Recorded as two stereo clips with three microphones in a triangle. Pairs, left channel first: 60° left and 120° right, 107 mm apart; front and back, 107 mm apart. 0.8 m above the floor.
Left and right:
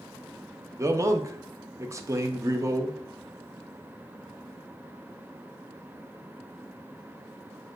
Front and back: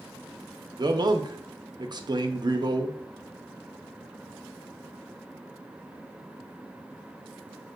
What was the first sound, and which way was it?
A man speaking, 165° right.